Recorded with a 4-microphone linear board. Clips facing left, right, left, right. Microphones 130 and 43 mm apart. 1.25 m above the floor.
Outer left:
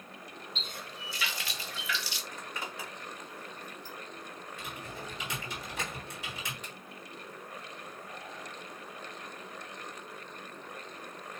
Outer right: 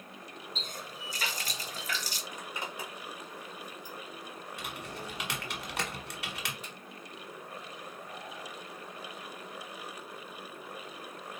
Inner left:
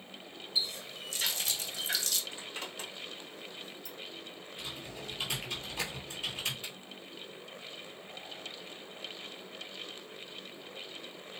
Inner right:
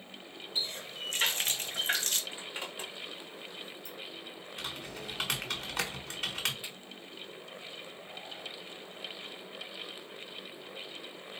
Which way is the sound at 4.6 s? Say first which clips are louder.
Outer right 1 dB, inner right 2 dB; 80° right.